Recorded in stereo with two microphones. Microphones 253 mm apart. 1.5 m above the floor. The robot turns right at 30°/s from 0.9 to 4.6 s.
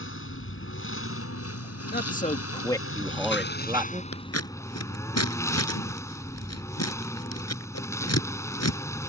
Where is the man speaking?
140° left; by 4.0 s 155° right.